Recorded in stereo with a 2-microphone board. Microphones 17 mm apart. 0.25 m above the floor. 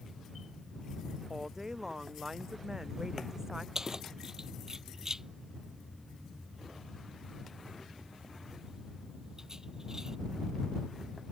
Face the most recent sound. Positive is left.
turn(degrees=-30)  # may be behind; listen again after turning